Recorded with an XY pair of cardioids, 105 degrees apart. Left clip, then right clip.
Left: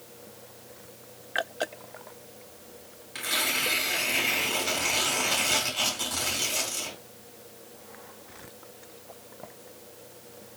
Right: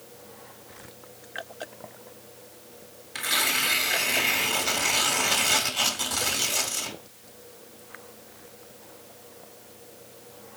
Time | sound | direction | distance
3.1 | tearing paper | 30° right | 1.0 m